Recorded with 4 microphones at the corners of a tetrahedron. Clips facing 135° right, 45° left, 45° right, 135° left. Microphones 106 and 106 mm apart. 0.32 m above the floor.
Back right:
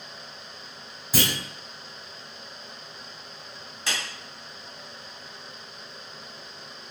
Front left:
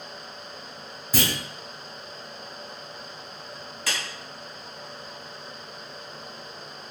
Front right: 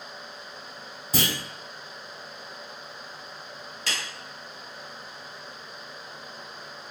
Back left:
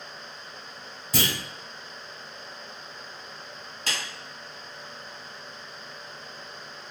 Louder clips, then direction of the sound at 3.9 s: Even, back left 1 dB; 170° left.